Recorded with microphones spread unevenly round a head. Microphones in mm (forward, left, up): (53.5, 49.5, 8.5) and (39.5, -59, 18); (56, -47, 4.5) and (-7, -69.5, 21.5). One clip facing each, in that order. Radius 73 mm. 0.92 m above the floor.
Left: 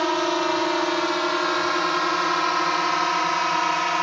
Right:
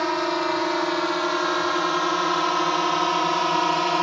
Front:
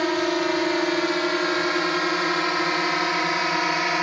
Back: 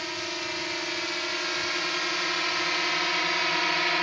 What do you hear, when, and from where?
0.0 s a drone: straight ahead; by 4.0 s 35° right